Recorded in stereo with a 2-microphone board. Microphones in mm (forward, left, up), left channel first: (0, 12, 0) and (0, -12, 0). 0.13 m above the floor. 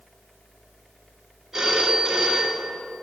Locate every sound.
1.5 s a phone ringing: 20° right (ahead or behind), 1.5 m